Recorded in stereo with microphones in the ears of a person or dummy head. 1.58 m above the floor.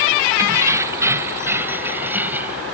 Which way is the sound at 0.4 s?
25° right (ahead or behind).